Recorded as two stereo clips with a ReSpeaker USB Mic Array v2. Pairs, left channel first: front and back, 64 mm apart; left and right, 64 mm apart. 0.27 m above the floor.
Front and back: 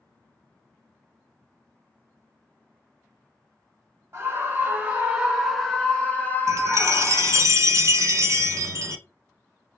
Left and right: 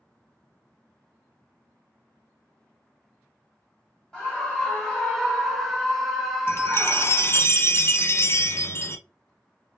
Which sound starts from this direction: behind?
A scream, at 4.1 s.